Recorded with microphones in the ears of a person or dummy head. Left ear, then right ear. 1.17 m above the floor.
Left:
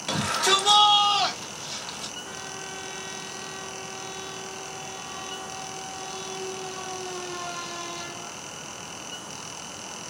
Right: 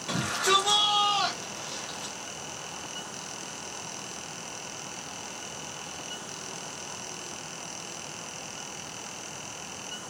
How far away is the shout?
About 2.5 m.